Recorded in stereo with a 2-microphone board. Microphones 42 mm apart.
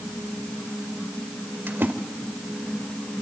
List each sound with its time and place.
1.7 s a splash: 55° right (ahead or behind), 2 m